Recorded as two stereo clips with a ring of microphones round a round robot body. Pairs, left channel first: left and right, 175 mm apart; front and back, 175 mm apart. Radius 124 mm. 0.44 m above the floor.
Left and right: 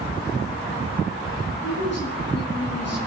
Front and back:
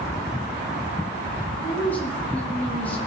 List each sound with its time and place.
1.6 s a woman speaking: 80° left, 4.5 m